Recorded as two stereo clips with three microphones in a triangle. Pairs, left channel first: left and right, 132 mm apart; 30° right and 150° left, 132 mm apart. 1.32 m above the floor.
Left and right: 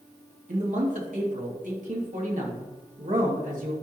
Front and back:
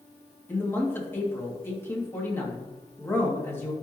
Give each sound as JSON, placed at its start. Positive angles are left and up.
{"t": 0.5, "sound": "a man speaking", "azimuth_deg": -105, "distance_m": 2.5}